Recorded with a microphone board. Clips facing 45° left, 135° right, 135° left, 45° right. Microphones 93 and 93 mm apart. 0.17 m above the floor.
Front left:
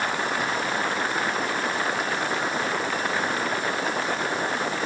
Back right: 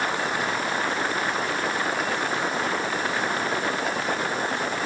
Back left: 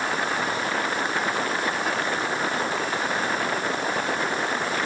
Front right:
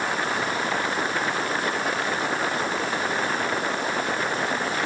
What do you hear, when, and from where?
Only background noise.